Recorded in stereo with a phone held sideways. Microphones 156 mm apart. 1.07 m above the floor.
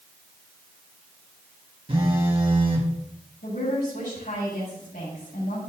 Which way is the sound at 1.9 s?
35° right (ahead or behind).